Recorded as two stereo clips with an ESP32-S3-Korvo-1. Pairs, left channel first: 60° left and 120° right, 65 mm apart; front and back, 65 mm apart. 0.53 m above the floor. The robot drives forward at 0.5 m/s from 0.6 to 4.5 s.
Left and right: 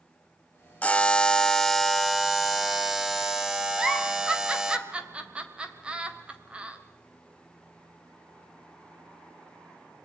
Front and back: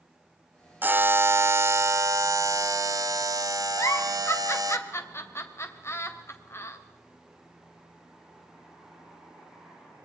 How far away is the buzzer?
About 0.9 m.